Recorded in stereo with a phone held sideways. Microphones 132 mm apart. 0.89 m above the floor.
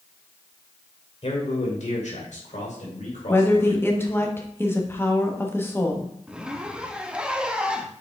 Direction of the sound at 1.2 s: 60° left (ahead or behind).